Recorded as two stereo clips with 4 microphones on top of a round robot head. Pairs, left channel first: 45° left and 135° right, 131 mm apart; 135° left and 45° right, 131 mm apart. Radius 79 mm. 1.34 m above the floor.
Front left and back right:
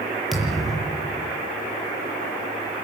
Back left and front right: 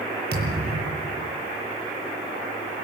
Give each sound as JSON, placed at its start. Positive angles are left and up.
{"t": 0.3, "sound": "a thud", "azimuth_deg": -45, "distance_m": 8.5}